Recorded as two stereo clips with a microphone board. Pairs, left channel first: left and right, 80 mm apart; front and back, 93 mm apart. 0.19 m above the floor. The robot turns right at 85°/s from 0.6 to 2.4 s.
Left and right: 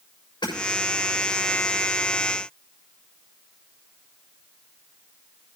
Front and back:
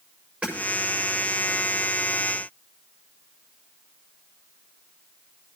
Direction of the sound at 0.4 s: 100° left.